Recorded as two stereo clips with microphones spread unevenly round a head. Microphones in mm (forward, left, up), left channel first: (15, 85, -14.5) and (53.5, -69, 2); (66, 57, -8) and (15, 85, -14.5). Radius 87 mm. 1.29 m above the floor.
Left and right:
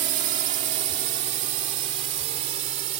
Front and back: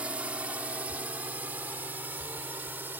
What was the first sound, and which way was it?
A drone, 130° right.